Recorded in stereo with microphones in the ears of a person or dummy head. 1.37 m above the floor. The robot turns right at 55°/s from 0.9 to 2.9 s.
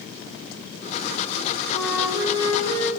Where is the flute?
165° left, 2.5 m; by 2.9 s 130° right, 2.5 m.